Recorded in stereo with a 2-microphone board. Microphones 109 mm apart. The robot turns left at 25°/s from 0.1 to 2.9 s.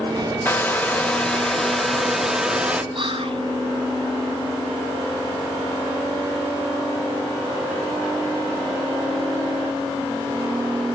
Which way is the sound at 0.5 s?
15° left (ahead or behind).